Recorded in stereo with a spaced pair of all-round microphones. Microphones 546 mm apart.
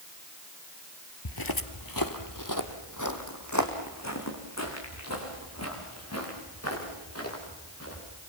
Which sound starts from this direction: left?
Footsteps, at 1.2 s.